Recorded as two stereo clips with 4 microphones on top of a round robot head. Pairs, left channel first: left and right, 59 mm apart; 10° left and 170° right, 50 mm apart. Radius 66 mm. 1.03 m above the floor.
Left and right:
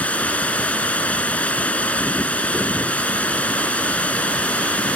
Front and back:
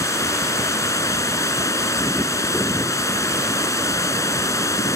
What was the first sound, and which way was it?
Running water, 25° left.